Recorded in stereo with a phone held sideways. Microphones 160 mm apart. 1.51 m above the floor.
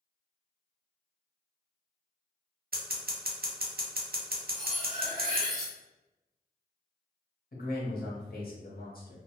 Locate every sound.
2.7 s scissors: 70° right (ahead or behind), 0.6 m
4.5 s cutlery clinking: centre (ahead or behind), 1.3 m
7.5 s a man speaking: 65° left (ahead or behind), 0.9 m